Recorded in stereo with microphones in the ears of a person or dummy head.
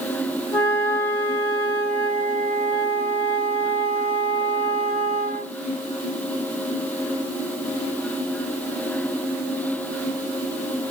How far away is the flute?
About 1.4 m.